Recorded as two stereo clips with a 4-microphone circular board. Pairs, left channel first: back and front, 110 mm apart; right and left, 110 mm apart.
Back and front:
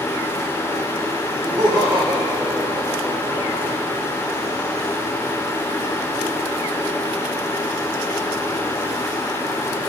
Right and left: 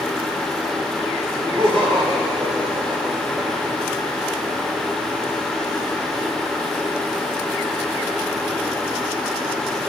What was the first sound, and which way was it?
Laughter, 50° left.